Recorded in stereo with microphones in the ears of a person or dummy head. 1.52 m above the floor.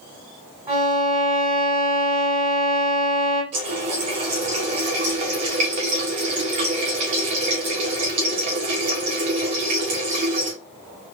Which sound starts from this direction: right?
A running tap, at 3.5 s.